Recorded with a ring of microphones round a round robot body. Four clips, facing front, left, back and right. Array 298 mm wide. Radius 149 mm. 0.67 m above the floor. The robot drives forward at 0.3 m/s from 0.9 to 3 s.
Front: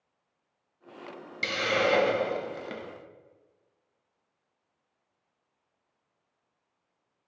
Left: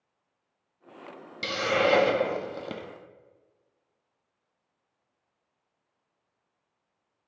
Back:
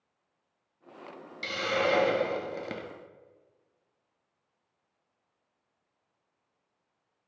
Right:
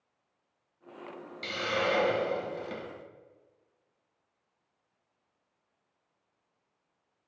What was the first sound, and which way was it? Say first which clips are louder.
A hiss: left 6 dB, front 2 dB; 60° left.